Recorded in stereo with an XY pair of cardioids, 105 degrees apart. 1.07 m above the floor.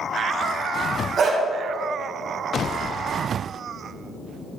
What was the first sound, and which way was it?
A dog barking, 55° right.